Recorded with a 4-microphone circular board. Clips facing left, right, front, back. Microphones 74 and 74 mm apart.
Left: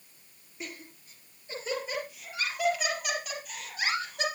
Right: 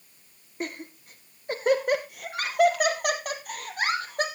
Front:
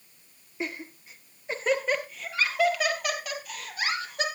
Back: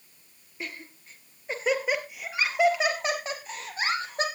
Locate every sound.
0.6 s laughter: 65° right, 1.9 m; by 4.2 s 130° right, 3.5 m